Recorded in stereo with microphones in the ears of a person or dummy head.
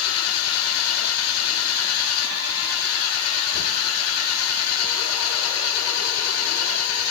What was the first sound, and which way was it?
An engine running, 90° left.